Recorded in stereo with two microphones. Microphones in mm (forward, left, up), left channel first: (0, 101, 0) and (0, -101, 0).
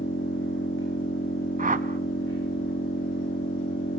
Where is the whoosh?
40° right (ahead or behind), 0.6 m.